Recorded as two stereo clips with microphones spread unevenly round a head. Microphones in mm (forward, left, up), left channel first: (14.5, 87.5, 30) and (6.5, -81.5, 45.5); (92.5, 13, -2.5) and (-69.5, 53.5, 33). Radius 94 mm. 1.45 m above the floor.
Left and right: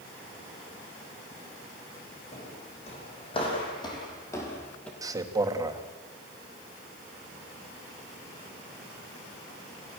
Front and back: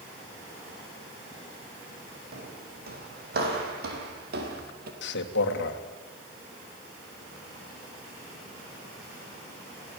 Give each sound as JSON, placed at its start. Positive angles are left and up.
{"t": 2.3, "sound": "footsteps", "azimuth_deg": 145, "distance_m": 5.5}
{"t": 5.0, "sound": "a man speaking", "azimuth_deg": -20, "distance_m": 2.0}